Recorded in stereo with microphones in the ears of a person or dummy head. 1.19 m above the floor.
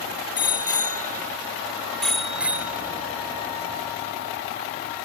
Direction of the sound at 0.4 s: 25° left (ahead or behind).